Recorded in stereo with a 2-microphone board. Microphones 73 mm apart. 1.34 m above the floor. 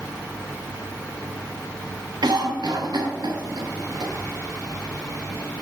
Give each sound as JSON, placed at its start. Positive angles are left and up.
{"t": 2.2, "sound": "a cough", "side_deg": -75, "distance_m": 0.6}